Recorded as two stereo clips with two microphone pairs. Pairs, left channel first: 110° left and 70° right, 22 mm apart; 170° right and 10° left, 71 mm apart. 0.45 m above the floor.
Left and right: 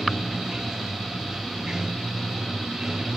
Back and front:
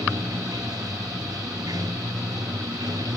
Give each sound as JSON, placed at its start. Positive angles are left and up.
{"t": 0.0, "sound": "running water", "azimuth_deg": -15}